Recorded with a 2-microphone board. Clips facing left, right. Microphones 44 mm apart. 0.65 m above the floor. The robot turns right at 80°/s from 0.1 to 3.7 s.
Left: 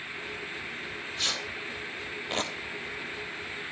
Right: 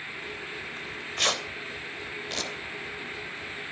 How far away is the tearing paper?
About 3.5 m.